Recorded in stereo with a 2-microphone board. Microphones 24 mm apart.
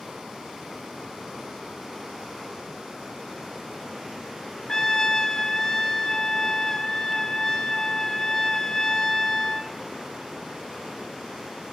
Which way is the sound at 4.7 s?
25° left (ahead or behind).